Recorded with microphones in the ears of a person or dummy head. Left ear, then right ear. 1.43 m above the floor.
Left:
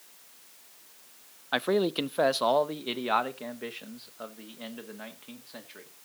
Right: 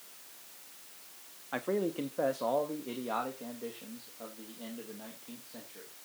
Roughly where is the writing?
I don't hear writing.